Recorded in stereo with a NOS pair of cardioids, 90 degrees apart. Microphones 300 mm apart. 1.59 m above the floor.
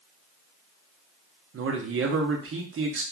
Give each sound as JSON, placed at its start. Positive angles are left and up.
{"t": 1.5, "sound": "a man speaking", "azimuth_deg": -45, "distance_m": 0.9}